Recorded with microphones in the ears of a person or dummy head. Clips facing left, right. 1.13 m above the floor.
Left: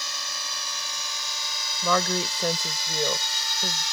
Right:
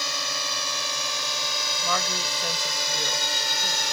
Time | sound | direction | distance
0.0 | a drone | 60° right (ahead or behind) | ?
1.8 | a woman speaking | 55° left (ahead or behind) | ?